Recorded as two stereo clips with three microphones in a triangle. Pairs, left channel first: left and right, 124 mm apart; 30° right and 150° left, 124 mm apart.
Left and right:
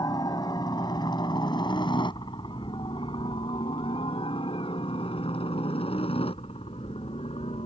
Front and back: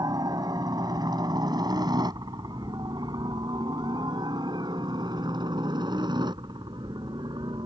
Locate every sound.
0.0 s a helicopter: 120° left; by 7.7 s 105° left